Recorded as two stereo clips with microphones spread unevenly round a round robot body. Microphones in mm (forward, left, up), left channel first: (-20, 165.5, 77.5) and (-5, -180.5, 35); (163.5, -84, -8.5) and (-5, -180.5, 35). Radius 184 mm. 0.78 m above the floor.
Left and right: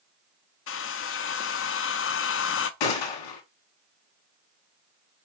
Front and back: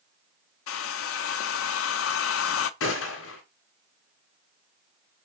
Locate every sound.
0.7 s a hair dryer: 35° left, 0.5 m
2.8 s a gunshot: 70° left, 1.6 m